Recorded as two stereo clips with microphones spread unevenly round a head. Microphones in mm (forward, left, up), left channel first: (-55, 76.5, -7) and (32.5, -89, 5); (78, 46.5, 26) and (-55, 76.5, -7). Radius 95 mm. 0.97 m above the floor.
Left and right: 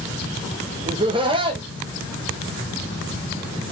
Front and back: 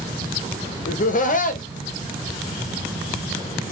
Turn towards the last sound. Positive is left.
turn(degrees=-5)